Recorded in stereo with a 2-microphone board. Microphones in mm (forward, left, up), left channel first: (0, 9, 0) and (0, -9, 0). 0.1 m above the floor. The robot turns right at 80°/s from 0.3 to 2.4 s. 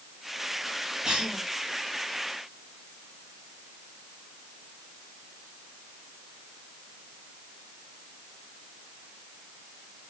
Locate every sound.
1.0 s a cough: 35° right (ahead or behind), 3 m; by 1.4 s 55° right (ahead or behind), 3 m